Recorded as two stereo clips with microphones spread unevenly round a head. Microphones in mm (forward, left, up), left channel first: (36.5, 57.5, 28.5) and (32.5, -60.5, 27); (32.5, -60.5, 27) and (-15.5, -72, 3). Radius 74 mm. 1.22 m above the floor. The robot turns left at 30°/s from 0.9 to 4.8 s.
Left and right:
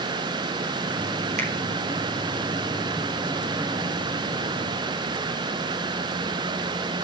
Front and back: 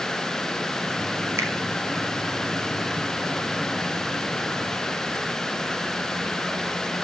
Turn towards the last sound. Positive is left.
turn(degrees=120)